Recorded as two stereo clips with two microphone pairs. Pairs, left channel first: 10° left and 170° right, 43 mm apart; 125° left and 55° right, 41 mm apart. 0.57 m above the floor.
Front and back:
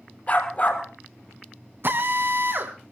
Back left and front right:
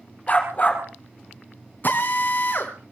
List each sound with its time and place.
0.3 s a dog barking: 70° left, 3.5 m
1.8 s a drill: 160° left, 3 m